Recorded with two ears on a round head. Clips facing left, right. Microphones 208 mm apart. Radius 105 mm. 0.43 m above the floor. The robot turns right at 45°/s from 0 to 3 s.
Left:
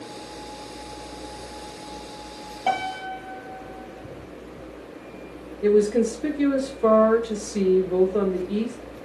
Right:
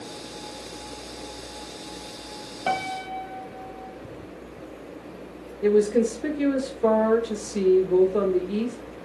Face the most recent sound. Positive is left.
turn(degrees=0)  # may be behind; listen again after turning